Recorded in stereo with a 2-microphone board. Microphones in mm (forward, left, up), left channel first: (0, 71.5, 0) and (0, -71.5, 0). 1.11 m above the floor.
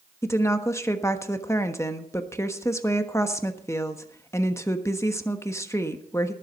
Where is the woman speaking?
20° left (ahead or behind), 1.2 m.